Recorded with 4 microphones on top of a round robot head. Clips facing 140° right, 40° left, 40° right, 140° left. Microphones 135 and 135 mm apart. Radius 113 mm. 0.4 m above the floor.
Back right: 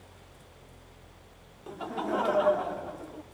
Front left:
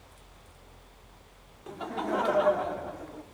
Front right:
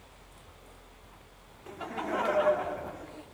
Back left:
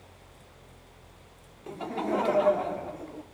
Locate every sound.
1.7 s laughter: 135° left, 0.8 m